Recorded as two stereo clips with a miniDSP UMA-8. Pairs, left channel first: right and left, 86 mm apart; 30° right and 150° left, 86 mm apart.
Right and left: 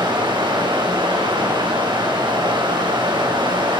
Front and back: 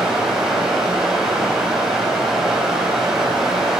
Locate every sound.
0.0 s running water: 65° left, 6 m